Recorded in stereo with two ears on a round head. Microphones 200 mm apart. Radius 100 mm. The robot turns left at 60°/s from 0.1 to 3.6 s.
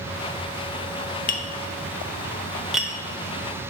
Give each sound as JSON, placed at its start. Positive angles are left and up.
{"t": 1.3, "sound": "tapping", "side_deg": 40, "distance_m": 0.6}